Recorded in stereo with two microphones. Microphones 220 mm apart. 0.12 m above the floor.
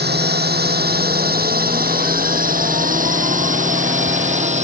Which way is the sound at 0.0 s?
50° right (ahead or behind).